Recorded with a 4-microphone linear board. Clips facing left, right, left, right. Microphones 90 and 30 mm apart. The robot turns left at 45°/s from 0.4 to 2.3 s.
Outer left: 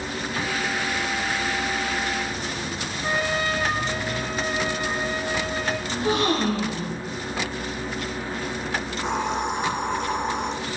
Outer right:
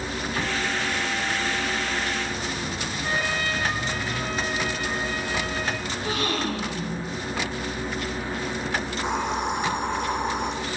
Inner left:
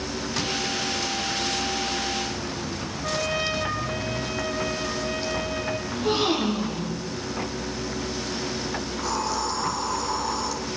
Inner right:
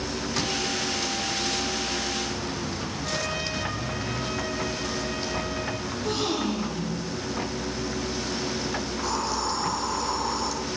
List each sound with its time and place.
3.0 s a trumpet: 20° left (ahead or behind), 8 m
5.9 s a gasp: 30° left (ahead or behind), 7 m
8.9 s a hiss: centre (ahead or behind), 8 m